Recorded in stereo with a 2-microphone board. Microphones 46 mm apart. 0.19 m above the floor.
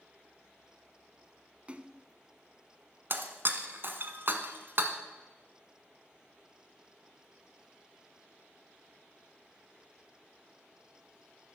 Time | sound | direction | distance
1.7 | a splash | 30° right (ahead or behind) | 0.6 m
3.1 | breaking glass | 50° right (ahead or behind) | 1.1 m